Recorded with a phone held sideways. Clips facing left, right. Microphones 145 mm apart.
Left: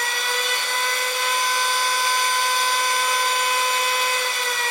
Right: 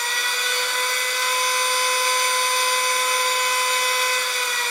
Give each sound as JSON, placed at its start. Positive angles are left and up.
{"t": 0.0, "sound": "a machine running", "side_deg": 60, "distance_m": 1.2}